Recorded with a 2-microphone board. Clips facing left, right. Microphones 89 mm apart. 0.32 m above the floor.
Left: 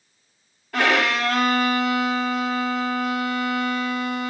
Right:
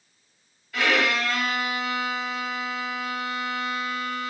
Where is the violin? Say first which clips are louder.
Left 3 dB; 65° left (ahead or behind), 0.7 m.